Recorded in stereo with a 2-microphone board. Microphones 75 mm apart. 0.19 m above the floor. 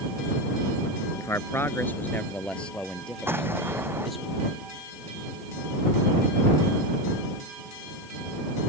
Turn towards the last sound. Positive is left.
turn(degrees=-30)  # may be behind; listen again after turning